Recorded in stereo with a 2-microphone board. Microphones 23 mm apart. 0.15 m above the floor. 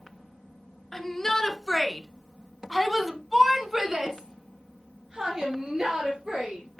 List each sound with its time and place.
0.9 s a shout: 20° left (ahead or behind), 1.6 m; by 6.8 s 25° right (ahead or behind), 3 m